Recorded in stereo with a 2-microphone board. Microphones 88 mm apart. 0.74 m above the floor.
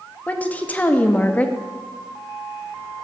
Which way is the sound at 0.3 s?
15° left (ahead or behind).